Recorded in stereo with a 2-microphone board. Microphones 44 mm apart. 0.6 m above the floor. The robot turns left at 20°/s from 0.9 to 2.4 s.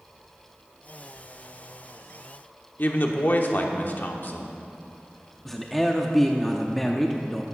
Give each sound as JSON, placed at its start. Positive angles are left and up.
{"t": 2.8, "sound": "a woman speaking", "side_deg": 45, "distance_m": 1.0}
{"t": 5.5, "sound": "a man speaking", "side_deg": 5, "distance_m": 0.6}